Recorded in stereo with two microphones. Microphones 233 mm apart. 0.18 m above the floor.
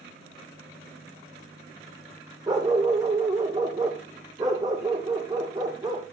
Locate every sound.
2.5 s a dog barking: 15° right (ahead or behind), 3 m